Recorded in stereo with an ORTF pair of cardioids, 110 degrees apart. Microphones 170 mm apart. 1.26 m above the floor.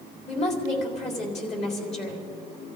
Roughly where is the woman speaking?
Ahead left.